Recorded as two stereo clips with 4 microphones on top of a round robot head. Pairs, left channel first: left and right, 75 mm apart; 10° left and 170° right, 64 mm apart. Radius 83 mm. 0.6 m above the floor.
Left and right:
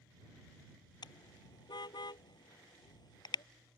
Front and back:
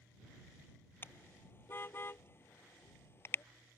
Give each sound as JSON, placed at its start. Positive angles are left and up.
{"t": 1.0, "sound": "a car horn", "azimuth_deg": 65}